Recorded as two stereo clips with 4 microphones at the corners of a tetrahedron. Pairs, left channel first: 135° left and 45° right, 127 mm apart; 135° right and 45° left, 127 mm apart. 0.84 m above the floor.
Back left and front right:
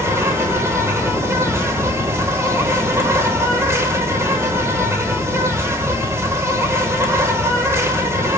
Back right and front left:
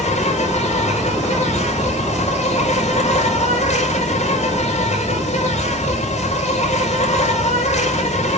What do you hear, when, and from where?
0.0 s an insect: 115° right, 4 m